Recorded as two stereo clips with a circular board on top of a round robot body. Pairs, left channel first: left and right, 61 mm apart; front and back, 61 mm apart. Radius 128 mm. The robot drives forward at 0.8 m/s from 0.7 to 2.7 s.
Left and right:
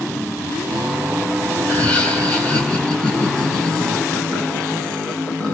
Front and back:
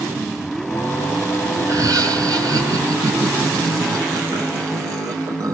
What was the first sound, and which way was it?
Laughter, 155° left.